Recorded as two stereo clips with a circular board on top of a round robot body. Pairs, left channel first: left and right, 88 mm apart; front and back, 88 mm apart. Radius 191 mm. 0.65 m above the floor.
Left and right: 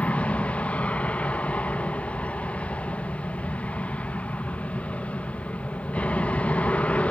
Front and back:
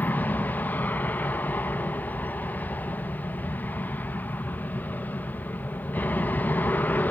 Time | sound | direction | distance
0.0 | an aircraft | 35° left | ?